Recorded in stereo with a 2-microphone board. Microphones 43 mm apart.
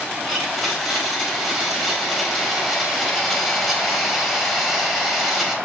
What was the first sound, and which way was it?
A blender, centre (ahead or behind).